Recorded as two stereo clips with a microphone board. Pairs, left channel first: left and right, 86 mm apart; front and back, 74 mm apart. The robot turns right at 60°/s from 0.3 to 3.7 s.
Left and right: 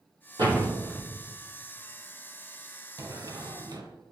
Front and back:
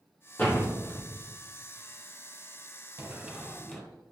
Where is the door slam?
65° right, 2 m; by 1.1 s 25° right, 2 m.